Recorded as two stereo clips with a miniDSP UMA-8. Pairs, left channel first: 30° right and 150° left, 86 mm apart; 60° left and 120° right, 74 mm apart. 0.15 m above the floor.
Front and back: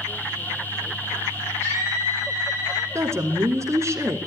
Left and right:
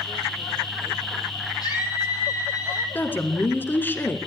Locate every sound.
1.6 s a scream: 30° left, 6 m; by 2.9 s 20° left, 6 m
3.0 s a woman speaking: 110° left, 1.7 m